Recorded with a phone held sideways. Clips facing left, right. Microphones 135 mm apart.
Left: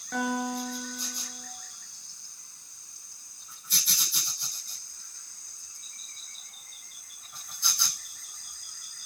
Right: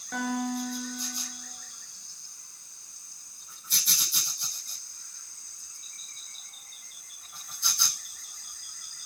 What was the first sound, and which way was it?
A guitar, centre (ahead or behind).